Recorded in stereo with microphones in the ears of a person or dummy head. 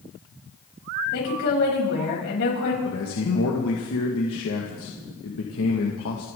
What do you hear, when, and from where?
1.1 s a woman speaking: 60° left (ahead or behind), 8 m
2.8 s a man speaking: 70° left (ahead or behind), 2 m